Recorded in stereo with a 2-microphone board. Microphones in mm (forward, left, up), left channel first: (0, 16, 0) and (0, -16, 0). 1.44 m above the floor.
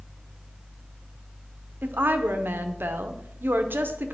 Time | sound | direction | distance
1.8 | a woman speaking | 80° right | 0.7 m